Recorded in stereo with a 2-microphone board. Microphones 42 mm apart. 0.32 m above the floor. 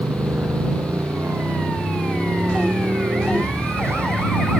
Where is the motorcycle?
80° right; by 4.6 s 75° right (ahead or behind).